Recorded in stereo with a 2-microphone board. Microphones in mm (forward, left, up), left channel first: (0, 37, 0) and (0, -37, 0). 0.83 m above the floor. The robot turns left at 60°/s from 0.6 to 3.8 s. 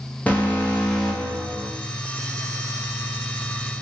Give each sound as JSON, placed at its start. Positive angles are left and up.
{"t": 0.3, "sound": "an alarm", "azimuth_deg": 30, "distance_m": 1.0}